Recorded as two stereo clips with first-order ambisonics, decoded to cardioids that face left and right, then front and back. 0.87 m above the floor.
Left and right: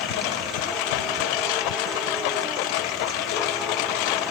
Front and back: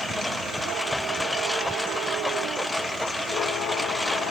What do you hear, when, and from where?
0.0 s a lawn mower: 85° left